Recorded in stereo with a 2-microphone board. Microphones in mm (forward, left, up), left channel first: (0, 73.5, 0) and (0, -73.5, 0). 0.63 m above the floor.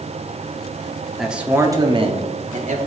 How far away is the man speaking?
About 1.0 m.